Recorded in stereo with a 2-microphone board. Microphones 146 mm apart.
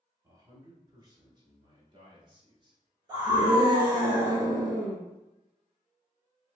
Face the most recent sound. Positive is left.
turn(degrees=-25)  # may be behind; listen again after turning